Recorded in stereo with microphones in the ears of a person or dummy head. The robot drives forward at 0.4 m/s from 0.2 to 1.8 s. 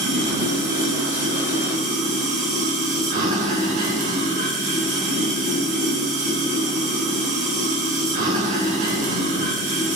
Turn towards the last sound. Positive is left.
turn(degrees=-45)  # may be behind; listen again after turning